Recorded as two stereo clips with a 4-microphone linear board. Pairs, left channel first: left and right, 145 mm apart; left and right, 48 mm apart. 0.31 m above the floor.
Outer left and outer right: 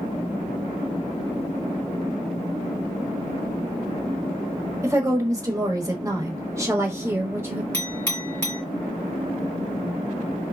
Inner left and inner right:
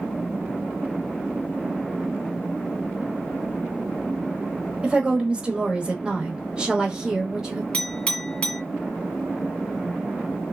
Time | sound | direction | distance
4.8 | a woman speaking | 20° right (ahead or behind) | 1.1 m
7.7 | a clink | 15° left (ahead or behind) | 2 m